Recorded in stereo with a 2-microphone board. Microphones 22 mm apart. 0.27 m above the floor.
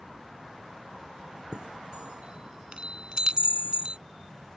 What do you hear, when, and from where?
1.5 s a chime: 40° right (ahead or behind)